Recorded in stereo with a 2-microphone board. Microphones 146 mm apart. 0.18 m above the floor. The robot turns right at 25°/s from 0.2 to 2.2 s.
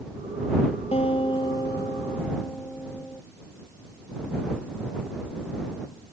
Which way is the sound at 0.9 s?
135° left.